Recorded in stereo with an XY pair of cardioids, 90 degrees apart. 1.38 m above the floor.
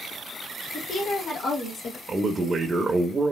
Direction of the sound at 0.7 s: 60° left.